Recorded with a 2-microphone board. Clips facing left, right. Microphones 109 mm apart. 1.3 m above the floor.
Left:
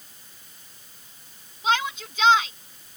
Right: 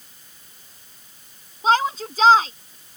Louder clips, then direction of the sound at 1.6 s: Right 6 dB; 35° right (ahead or behind).